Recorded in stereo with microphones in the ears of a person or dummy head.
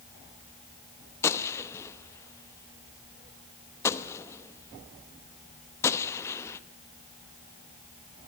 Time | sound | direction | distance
1.2 | a gunshot | 15° left (ahead or behind) | 0.9 m